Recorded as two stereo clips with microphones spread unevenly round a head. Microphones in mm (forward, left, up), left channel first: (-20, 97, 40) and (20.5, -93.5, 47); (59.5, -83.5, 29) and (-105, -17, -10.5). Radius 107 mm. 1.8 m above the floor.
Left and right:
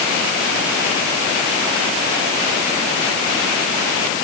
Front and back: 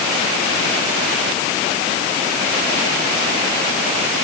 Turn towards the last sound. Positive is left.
No sound to turn to.